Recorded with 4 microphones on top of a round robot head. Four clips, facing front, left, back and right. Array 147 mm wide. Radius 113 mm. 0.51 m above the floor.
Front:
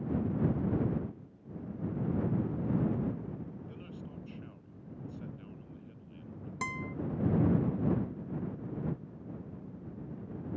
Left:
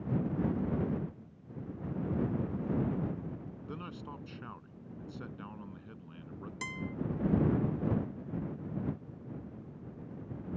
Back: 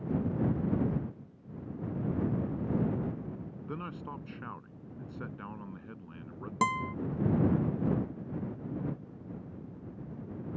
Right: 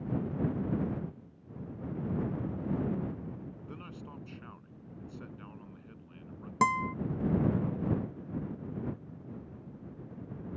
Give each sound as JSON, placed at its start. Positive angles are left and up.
{"t": 3.7, "sound": "a man speaking", "azimuth_deg": 165}
{"t": 6.6, "sound": "a guitar", "azimuth_deg": -125}